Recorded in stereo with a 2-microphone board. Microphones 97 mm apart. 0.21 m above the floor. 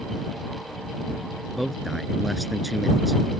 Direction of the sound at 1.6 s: Centre (ahead or behind).